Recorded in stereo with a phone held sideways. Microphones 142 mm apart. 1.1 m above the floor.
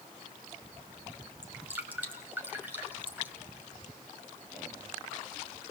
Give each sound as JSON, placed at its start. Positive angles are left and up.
{"t": 1.4, "sound": "dripping", "side_deg": -15, "distance_m": 2.5}